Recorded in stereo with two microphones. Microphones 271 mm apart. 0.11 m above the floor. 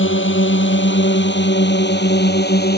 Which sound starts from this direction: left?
A drone, at 0.0 s.